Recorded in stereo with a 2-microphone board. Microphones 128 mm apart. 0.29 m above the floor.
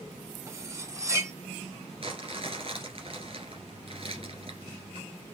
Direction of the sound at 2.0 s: 45° right (ahead or behind).